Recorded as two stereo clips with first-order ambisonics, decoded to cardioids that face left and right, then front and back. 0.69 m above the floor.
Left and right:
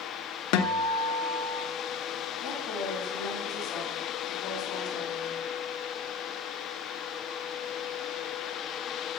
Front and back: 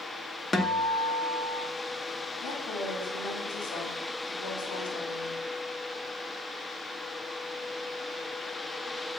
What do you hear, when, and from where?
0.5 s a guitar: 75° left, 0.8 m
2.4 s a woman speaking: 35° left, 5.5 m